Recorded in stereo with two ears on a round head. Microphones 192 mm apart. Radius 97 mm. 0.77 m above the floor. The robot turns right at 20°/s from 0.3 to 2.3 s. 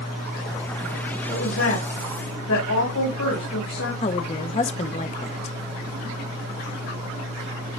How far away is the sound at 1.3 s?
About 4.5 m.